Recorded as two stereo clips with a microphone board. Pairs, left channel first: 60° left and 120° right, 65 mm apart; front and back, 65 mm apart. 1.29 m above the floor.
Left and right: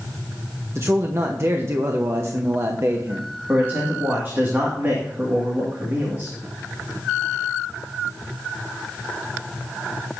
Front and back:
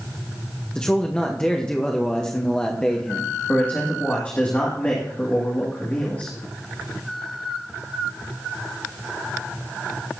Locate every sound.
0.8 s a man speaking: 75° right, 1.0 m
3.5 s a man speaking: 65° right, 2 m